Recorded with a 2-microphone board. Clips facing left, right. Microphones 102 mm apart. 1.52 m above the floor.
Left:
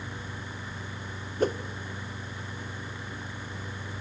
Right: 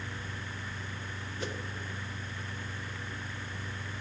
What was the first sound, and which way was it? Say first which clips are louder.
A whoosh: left 13 dB; 50° left (ahead or behind).